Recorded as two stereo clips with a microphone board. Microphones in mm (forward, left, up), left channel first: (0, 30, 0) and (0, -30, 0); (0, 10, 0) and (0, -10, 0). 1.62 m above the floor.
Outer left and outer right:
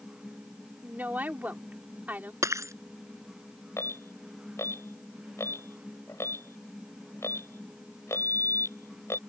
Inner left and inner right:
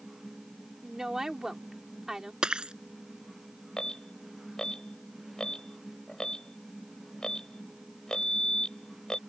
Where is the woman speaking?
30° right (ahead or behind).